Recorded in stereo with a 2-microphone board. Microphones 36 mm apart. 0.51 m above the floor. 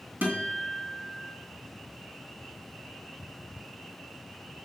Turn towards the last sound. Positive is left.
turn(degrees=-60)  # may be behind; listen again after turning